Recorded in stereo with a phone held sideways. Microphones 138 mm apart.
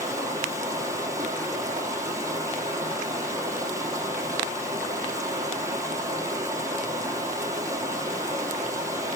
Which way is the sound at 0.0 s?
20° right (ahead or behind).